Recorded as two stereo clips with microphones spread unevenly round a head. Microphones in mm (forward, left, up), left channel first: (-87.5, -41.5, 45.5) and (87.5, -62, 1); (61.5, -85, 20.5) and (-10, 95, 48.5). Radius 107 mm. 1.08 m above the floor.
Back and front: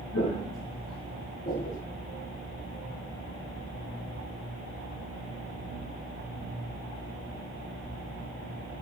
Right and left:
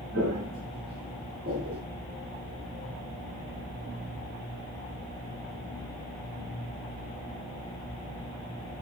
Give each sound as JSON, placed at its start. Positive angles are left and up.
{"t": 0.1, "sound": "footsteps", "azimuth_deg": 145, "distance_m": 3.0}